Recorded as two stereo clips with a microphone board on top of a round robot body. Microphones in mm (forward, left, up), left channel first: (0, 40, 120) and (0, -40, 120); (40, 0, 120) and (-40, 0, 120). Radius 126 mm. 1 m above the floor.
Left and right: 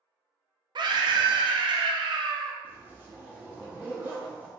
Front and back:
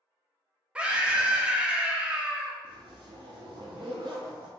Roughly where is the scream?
Right.